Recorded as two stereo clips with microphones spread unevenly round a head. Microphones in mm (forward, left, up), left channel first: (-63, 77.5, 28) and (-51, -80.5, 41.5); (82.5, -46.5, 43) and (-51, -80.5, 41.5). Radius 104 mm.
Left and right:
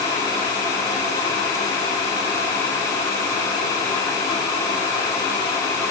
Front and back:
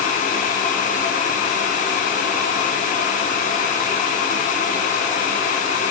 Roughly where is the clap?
No clap in this recording.